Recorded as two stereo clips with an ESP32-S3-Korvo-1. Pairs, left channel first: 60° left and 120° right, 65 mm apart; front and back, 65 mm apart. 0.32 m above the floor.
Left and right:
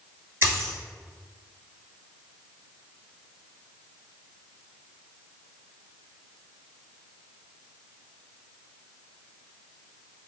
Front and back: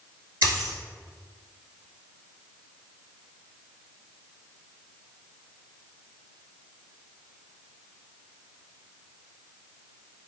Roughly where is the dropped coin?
Behind.